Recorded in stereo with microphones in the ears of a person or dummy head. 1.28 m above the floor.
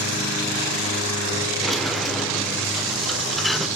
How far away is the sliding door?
About 1.0 m.